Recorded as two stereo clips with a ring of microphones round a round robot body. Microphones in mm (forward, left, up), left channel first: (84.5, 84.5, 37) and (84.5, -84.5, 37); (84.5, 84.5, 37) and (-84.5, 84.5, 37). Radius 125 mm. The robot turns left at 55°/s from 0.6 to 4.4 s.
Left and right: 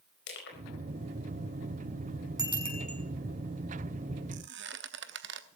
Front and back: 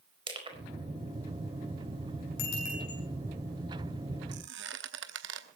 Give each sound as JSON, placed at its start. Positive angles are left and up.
{"t": 0.3, "sound": "crushing", "azimuth_deg": 120, "distance_m": 4.5}
{"t": 2.4, "sound": "a bicycle bell", "azimuth_deg": -20, "distance_m": 6.5}
{"t": 4.3, "sound": "a squeak", "azimuth_deg": -130, "distance_m": 0.8}